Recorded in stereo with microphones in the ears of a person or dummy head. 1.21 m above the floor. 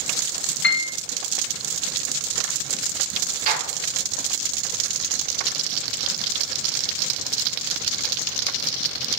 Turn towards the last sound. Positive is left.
turn(degrees=-40)  # may be behind; listen again after turning